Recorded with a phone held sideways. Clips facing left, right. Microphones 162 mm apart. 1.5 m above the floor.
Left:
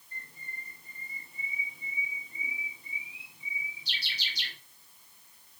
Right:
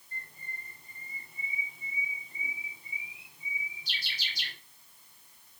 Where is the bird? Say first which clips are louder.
Right 1 dB; 50° right (ahead or behind), 2.5 m.